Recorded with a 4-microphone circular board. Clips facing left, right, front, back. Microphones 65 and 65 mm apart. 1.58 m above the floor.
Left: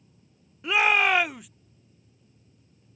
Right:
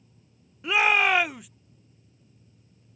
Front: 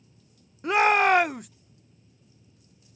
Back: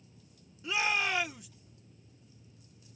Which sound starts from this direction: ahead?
A shout, at 0.6 s.